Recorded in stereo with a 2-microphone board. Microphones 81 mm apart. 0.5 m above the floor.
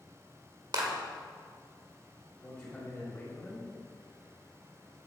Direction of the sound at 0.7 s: 55° right (ahead or behind).